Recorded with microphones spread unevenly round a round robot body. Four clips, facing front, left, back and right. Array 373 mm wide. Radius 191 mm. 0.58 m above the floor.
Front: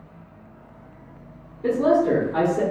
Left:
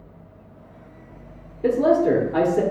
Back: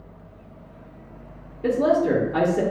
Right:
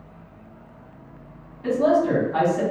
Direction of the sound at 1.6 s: 110° left.